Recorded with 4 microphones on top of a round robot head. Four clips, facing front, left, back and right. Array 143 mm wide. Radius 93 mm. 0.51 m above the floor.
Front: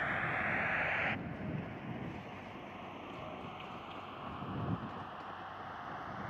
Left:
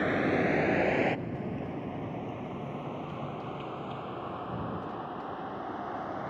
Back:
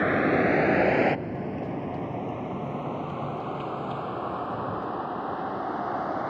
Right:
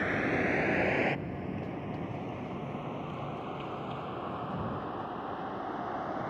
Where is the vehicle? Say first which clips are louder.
Left 3 dB, back 15 dB; 165° left; by 6.3 s straight behind.